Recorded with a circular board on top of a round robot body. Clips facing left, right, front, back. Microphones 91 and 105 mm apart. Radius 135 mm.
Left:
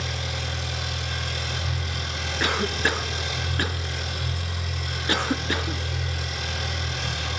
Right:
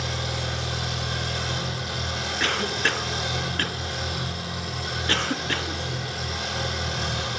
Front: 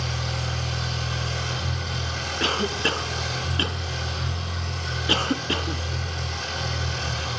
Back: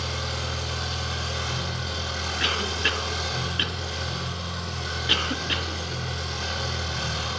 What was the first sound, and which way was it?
An engine running, 100° right.